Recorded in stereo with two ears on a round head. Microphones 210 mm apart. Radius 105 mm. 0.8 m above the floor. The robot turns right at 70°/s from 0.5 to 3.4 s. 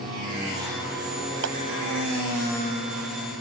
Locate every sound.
1.4 s a clap: 60° right (ahead or behind); by 1.6 s 70° right (ahead or behind)